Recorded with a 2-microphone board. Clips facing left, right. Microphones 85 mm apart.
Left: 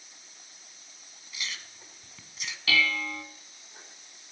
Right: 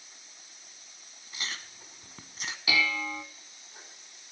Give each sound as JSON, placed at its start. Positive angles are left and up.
{"t": 1.3, "sound": "chewing", "side_deg": -40, "distance_m": 0.7}
{"t": 2.7, "sound": "dishes clattering", "side_deg": -15, "distance_m": 0.8}